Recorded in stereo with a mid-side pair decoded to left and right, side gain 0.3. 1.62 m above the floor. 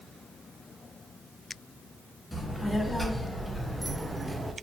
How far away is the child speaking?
About 1.4 m.